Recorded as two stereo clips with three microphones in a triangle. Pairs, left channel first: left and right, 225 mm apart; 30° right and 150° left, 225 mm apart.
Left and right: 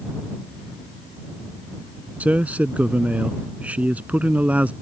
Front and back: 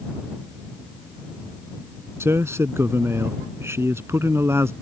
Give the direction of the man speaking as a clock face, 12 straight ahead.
5 o'clock.